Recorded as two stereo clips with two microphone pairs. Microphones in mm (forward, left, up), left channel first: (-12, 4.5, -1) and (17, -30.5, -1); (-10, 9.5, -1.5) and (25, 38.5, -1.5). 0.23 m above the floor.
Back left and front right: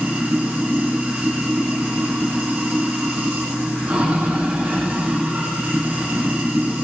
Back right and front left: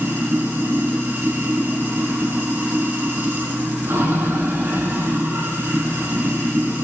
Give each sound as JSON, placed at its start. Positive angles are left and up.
{"t": 0.0, "sound": "running water", "azimuth_deg": 15, "distance_m": 6.5}